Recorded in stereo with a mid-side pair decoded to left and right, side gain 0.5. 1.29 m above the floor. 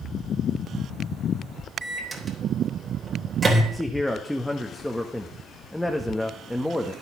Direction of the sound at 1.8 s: 25° right.